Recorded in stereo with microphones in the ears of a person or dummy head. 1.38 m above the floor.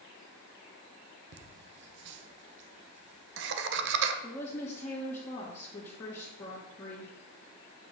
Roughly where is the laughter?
Right.